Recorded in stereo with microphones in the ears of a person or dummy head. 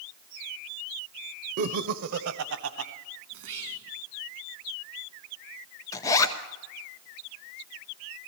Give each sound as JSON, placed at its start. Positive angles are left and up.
{"t": 1.6, "sound": "laughter", "side_deg": -55, "distance_m": 0.6}
{"t": 3.3, "sound": "whispering", "side_deg": -80, "distance_m": 1.2}
{"t": 5.9, "sound": "a zipper", "side_deg": 20, "distance_m": 0.9}